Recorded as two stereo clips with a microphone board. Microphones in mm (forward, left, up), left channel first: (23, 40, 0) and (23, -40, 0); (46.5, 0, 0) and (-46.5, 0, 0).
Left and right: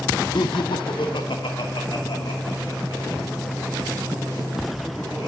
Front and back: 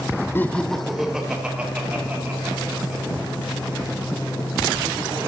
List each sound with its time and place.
0.3 s laughter: 65° left, 0.5 m; by 5.3 s 115° left, 4.5 m